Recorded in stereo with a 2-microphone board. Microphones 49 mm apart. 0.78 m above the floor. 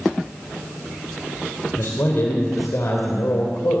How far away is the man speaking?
About 3.5 m.